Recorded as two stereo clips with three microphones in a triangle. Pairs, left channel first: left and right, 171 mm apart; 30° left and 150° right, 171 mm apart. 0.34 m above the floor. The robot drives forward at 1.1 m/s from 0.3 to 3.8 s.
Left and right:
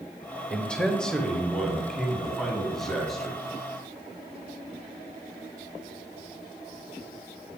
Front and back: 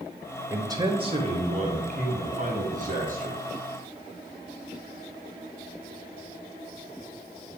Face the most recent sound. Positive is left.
turn(degrees=180)